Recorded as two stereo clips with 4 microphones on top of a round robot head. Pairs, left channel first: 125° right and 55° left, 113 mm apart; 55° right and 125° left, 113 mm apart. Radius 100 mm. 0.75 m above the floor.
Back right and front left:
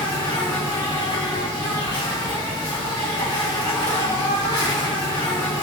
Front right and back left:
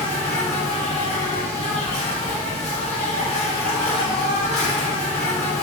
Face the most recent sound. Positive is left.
turn(degrees=-75)